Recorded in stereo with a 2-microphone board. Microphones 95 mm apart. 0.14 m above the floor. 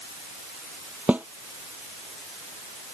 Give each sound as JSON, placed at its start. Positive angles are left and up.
{"t": 1.1, "sound": "a snare drum", "side_deg": -15}